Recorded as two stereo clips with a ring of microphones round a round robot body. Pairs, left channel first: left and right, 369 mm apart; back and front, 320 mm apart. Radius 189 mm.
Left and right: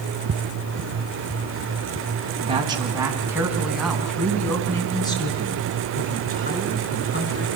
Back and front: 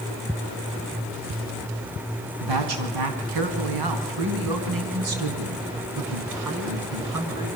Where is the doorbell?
I don't hear a doorbell.